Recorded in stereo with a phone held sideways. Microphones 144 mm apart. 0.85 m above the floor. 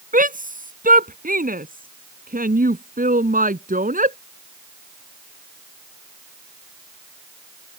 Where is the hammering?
I don't hear hammering.